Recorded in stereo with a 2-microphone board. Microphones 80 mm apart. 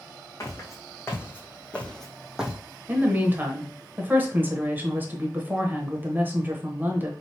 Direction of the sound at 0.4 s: 45° left (ahead or behind).